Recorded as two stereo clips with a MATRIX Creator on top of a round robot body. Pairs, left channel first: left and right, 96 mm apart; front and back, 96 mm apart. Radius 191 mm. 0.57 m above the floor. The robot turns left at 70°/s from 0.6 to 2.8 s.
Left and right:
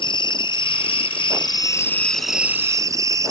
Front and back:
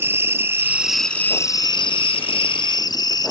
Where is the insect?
115° left, 0.7 m; by 3.3 s 40° right, 0.7 m.